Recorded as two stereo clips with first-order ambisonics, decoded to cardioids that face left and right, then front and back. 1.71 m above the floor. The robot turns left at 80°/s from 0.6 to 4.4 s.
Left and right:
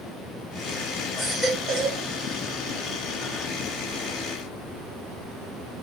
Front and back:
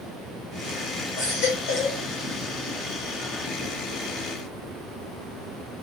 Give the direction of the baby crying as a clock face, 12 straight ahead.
12 o'clock.